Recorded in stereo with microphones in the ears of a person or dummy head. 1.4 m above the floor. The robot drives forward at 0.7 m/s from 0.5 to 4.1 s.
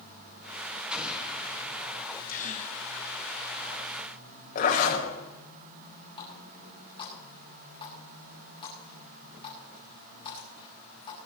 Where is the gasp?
45° left (ahead or behind), 1.0 m; by 2.8 s 35° left (ahead or behind), 1.3 m.